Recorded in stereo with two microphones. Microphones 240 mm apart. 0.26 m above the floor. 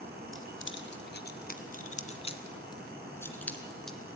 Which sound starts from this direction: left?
Keys jangling, at 0.3 s.